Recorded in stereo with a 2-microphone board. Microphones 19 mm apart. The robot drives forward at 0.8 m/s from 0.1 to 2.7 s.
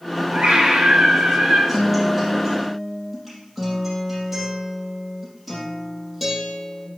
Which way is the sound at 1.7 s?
10° right (ahead or behind).